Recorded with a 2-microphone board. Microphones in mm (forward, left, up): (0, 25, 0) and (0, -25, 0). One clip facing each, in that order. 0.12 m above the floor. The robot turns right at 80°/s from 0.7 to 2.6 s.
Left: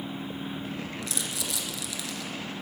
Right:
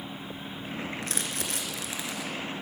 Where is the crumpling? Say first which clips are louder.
Right 1 dB; 40° right (ahead or behind), 1.8 m; by 2.3 s 10° right (ahead or behind), 1.8 m.